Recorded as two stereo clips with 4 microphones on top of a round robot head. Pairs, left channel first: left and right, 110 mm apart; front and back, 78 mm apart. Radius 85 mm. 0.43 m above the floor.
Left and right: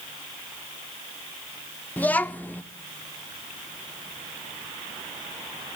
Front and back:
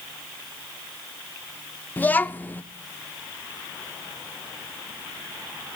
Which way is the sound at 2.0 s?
35° left.